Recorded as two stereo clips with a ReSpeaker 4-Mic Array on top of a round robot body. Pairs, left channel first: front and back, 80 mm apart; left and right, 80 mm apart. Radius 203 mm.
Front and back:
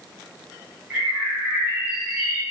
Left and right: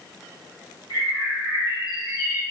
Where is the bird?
115° left, 1.6 m.